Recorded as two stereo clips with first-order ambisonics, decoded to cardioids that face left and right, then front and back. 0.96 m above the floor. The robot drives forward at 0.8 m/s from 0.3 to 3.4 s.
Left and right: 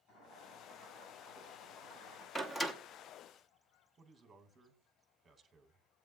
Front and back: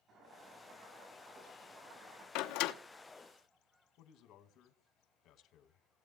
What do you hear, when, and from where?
0.1 s boiling: 130° left, 6 m; by 2.2 s 140° left, 7 m
2.4 s a door slam: 10° left, 1.0 m; by 2.7 s 15° left, 0.7 m
4.0 s a man speaking: 15° right, 1.4 m